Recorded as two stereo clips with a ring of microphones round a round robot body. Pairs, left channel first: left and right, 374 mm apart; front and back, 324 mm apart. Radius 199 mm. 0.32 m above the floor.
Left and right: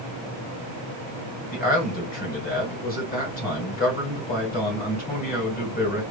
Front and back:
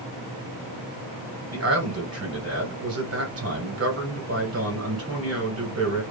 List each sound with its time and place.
1.5 s a man speaking: 150° left, 2 m